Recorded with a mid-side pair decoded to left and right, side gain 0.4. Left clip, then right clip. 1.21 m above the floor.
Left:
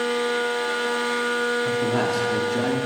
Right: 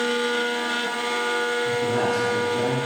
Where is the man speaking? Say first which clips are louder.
Even; 35° left, 4 m; by 2.8 s 55° left, 2.5 m.